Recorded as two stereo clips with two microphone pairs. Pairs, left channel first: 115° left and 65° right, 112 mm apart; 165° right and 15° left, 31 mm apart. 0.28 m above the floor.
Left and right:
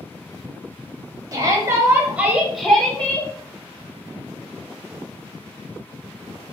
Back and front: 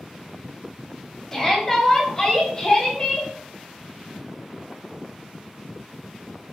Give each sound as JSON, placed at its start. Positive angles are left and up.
{"t": 1.3, "sound": "a shout", "azimuth_deg": -100, "distance_m": 1.5}